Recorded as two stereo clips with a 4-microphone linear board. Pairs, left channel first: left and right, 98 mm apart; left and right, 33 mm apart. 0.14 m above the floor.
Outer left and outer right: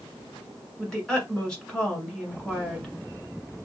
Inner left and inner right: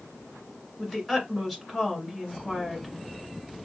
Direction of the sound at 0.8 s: 5° left (ahead or behind).